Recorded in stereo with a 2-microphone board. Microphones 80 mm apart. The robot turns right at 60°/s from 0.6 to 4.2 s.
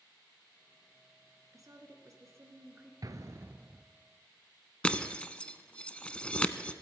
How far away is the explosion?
About 0.7 m.